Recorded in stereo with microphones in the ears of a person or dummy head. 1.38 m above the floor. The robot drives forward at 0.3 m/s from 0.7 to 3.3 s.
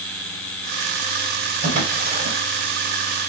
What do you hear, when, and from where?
1.6 s a drawer: 45° right (ahead or behind), 2.5 m